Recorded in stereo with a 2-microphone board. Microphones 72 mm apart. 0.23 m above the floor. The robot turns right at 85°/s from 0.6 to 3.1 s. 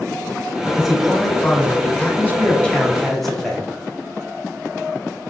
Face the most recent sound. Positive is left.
turn(degrees=0)  # may be behind; listen again after turning